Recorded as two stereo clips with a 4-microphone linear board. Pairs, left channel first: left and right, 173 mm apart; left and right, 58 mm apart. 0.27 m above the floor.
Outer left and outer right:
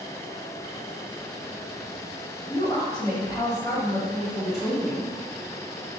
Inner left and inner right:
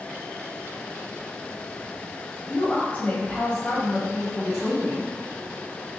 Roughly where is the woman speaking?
Left.